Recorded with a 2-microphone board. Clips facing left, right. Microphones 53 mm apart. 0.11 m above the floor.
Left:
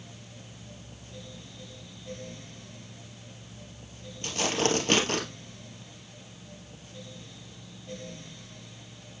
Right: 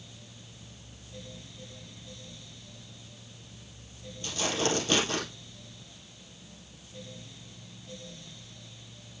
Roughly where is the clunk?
No clunk in this recording.